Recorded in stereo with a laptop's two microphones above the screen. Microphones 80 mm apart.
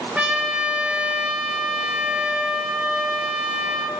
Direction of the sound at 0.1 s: 15° right (ahead or behind).